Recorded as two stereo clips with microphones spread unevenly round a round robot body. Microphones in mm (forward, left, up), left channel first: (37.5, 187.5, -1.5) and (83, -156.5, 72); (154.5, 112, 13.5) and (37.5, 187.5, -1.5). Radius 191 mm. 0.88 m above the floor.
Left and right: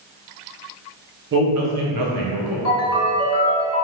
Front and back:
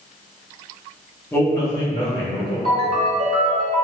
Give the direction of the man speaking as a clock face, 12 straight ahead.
3 o'clock.